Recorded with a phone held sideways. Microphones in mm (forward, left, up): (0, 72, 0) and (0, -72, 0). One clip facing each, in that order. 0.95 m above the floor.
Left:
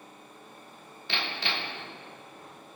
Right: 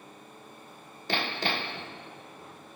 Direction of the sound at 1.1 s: 40° right (ahead or behind).